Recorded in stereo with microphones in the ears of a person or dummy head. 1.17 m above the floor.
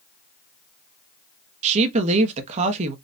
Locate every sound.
1.6 s a woman speaking: 40° right (ahead or behind), 0.9 m